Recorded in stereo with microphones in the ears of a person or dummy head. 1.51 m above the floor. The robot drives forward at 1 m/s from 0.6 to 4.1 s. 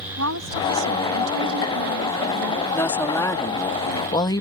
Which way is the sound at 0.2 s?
80° right.